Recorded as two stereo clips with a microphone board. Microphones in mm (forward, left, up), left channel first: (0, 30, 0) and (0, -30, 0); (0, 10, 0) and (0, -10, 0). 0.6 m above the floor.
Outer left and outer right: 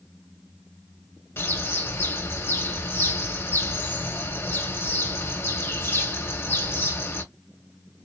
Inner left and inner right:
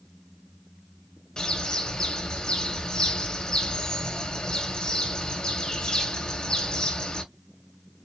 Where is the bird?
40° left (ahead or behind), 1.6 m.